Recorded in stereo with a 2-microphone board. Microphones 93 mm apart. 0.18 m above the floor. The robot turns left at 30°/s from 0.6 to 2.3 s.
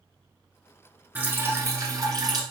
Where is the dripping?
20° right, 1.1 m; by 2.4 s 55° right, 1.1 m.